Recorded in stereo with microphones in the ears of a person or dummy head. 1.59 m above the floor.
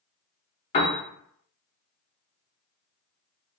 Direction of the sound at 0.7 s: 25° left (ahead or behind).